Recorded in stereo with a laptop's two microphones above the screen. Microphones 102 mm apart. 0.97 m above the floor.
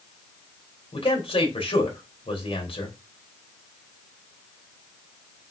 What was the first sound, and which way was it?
A man speaking, 70° left (ahead or behind).